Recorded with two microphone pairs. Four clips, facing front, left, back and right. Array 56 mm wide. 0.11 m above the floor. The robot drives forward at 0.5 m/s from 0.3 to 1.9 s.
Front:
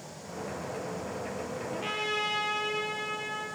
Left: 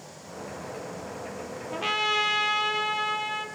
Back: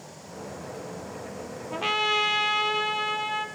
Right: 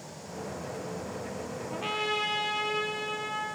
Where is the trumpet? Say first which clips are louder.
Left 5 dB, back 8 dB; 170° left, 3 m.